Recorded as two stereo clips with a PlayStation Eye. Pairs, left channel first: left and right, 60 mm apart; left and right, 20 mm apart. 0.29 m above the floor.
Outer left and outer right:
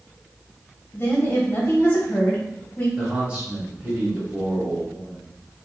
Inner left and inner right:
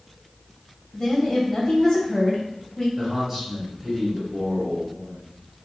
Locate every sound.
0.9 s a woman speaking: 35° left (ahead or behind), 1.8 m
3.0 s a man speaking: 20° right (ahead or behind), 1.3 m